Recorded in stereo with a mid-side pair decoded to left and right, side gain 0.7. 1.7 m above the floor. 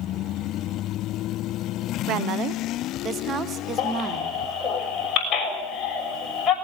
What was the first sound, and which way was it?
A woman speaking, 60° right.